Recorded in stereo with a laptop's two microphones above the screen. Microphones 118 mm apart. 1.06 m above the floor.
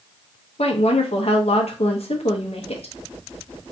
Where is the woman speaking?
60° left (ahead or behind), 1.0 m.